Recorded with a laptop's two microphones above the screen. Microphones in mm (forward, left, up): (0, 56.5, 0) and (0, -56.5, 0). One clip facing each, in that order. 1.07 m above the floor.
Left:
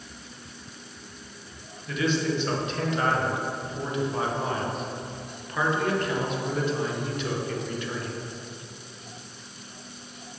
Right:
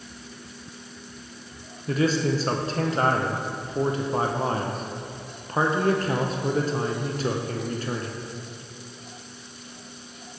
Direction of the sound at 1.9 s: 40° right (ahead or behind).